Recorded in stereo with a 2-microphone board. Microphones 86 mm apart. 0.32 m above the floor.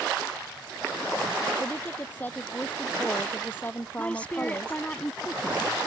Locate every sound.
1.6 s a woman speaking: 20° left (ahead or behind); by 4.8 s 30° left (ahead or behind)
4.0 s a woman speaking: 15° left (ahead or behind)